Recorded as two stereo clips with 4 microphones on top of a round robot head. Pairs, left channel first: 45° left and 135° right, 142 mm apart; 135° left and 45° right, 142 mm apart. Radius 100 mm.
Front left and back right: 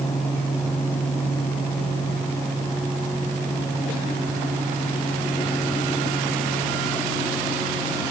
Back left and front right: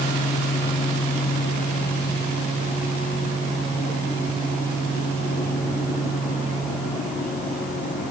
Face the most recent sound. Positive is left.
No sound to turn to.